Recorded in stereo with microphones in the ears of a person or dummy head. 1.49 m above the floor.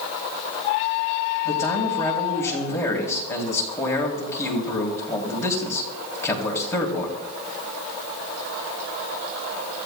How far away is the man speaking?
About 3 m.